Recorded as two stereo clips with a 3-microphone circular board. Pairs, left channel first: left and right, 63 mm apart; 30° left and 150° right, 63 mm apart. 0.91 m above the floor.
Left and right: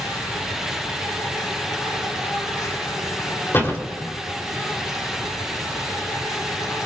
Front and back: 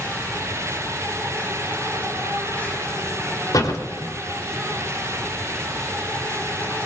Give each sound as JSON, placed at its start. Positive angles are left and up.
{"t": 0.0, "sound": "an insect", "azimuth_deg": 90, "distance_m": 5.0}
{"t": 3.5, "sound": "a door slam", "azimuth_deg": 35, "distance_m": 3.0}